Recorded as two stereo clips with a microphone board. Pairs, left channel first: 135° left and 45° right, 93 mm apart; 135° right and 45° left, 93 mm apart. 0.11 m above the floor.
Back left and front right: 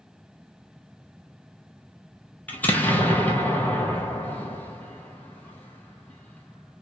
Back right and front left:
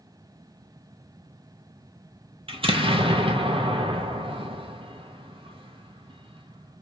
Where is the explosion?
65° left, 1.1 m.